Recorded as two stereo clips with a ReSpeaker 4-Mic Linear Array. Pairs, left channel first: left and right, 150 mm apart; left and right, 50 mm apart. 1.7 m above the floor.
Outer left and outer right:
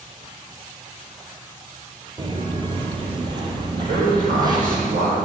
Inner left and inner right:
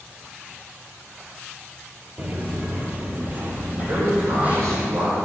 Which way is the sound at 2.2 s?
30° right (ahead or behind).